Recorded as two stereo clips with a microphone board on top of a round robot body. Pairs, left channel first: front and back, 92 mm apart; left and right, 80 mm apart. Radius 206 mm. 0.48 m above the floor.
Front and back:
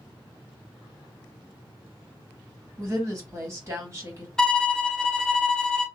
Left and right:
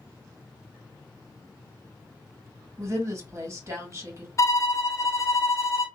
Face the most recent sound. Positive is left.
turn(degrees=80)